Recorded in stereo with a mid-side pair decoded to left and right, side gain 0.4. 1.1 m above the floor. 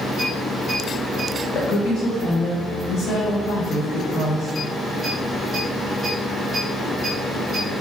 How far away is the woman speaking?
About 0.9 m.